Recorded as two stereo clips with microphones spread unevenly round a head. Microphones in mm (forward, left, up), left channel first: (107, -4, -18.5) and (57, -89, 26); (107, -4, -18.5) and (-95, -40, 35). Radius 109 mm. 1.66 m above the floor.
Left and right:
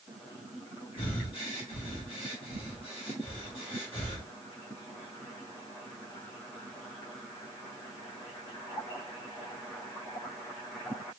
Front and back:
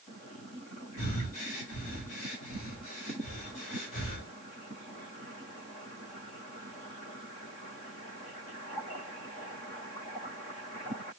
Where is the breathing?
35° left, 1.7 m.